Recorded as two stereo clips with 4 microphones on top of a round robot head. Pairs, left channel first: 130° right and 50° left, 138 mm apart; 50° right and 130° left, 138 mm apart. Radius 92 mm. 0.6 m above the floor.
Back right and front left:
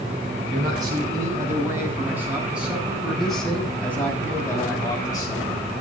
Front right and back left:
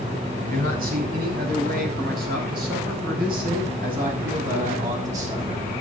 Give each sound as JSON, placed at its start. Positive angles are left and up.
{"t": 0.5, "sound": "a man speaking", "azimuth_deg": 110, "distance_m": 6.0}